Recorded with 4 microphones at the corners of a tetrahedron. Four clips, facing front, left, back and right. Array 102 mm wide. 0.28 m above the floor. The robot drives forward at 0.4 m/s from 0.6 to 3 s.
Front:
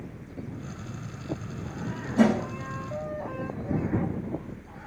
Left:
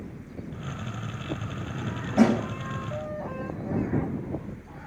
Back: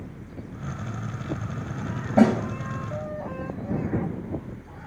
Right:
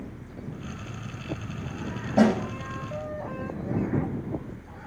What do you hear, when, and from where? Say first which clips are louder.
2.2 s a snare drum: even, back 3 dB; 155° right, 9 m